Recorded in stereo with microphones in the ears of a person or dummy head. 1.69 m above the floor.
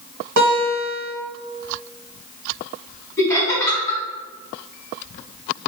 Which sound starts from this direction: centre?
Laughter, at 3.2 s.